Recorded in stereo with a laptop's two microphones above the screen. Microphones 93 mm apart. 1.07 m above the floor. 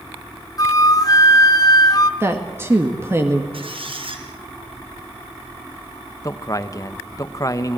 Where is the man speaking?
35° left (ahead or behind), 0.9 m.